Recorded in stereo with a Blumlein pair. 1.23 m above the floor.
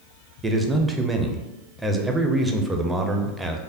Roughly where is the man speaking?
Ahead.